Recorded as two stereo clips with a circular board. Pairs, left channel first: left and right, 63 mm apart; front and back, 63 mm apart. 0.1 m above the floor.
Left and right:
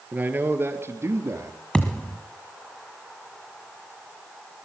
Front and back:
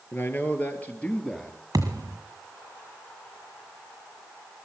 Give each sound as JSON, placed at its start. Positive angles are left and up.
{"t": 0.1, "sound": "a man speaking", "azimuth_deg": -35, "distance_m": 1.9}
{"t": 1.7, "sound": "a thud", "azimuth_deg": 165, "distance_m": 1.7}